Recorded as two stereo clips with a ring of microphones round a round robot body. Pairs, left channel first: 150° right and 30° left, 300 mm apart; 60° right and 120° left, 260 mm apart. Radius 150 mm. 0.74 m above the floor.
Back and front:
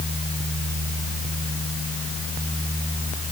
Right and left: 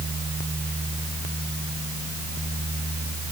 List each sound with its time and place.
Only background noise.